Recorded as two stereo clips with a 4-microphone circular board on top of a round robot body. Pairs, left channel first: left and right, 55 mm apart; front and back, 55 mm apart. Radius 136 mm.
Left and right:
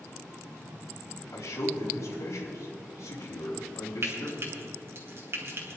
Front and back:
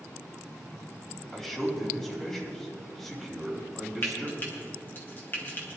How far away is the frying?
About 3 m.